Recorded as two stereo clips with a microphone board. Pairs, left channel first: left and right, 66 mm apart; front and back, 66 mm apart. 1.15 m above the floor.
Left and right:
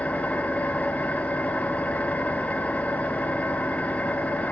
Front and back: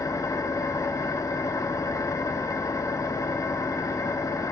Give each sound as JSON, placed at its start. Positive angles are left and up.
{"t": 0.0, "sound": "an engine running", "azimuth_deg": 20, "distance_m": 0.8}